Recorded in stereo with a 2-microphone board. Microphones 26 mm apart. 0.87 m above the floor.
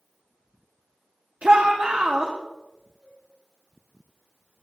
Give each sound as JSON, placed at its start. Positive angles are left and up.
{"t": 1.4, "sound": "a shout", "side_deg": -65, "distance_m": 1.8}
{"t": 3.0, "sound": "a cowbell", "side_deg": -60, "distance_m": 6.5}